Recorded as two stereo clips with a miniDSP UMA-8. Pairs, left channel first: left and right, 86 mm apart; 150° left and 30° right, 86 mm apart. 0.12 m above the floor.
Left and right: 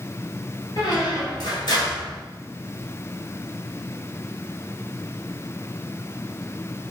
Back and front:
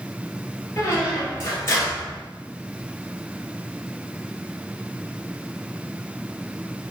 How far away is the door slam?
No door slam in this recording.